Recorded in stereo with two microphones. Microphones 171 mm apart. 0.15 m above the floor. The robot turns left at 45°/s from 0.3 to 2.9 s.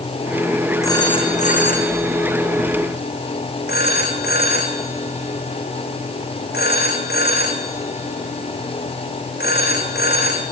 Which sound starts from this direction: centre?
A phone ringing, at 0.8 s.